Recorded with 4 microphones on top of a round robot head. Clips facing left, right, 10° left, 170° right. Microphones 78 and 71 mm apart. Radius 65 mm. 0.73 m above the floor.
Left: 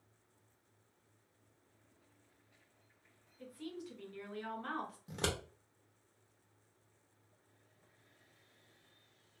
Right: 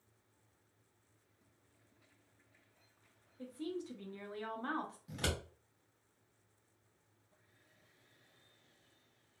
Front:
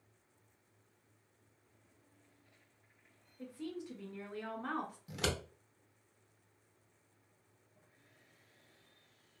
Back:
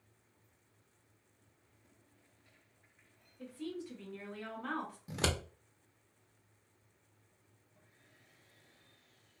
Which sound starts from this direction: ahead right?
A woman speaking, at 3.4 s.